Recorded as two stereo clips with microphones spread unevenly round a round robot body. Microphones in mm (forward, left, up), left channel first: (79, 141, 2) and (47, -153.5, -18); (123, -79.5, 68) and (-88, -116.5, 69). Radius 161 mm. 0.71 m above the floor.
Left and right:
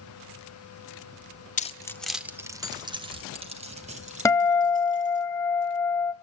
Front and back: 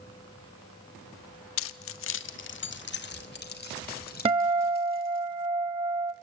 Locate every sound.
1.6 s keys jangling: 20° left, 0.7 m; by 5.2 s 35° right, 4 m
4.2 s a guitar: 145° left, 0.5 m